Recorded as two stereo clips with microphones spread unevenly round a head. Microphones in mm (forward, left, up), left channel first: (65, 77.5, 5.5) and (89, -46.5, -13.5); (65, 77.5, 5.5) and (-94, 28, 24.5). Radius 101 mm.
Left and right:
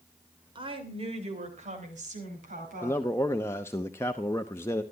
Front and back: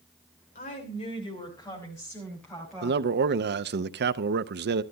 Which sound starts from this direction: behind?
A man speaking, at 2.8 s.